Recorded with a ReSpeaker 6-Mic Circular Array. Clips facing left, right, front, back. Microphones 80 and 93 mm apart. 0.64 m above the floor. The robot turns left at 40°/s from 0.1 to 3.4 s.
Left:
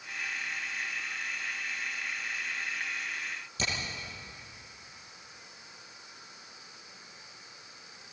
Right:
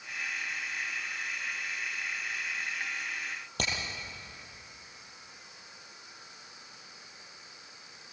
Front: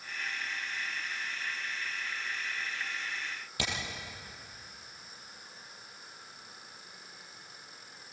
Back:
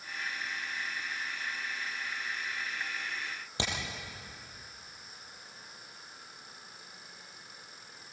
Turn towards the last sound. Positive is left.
turn(degrees=-115)